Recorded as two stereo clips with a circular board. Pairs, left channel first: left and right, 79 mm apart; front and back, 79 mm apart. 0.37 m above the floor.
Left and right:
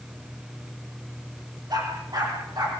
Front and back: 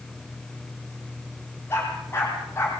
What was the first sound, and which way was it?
A dog barking, 60° right.